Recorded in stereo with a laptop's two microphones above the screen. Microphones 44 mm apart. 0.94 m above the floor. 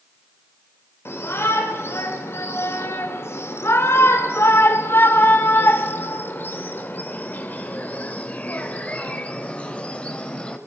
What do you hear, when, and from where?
1.1 s a shout: 70° left (ahead or behind), 4 m; by 10.6 s 25° left (ahead or behind), 5.5 m